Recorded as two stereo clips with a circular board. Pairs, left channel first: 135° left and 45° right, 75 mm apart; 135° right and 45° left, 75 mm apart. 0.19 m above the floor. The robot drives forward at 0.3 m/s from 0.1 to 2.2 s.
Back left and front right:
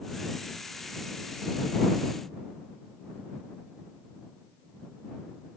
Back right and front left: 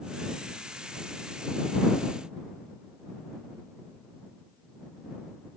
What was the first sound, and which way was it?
Only background noise.